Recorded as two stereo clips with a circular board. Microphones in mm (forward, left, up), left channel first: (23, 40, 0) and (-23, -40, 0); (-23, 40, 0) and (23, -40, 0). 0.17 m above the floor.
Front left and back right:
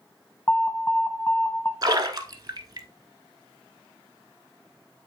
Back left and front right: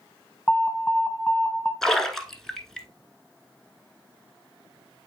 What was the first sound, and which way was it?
An alarm, 70° left.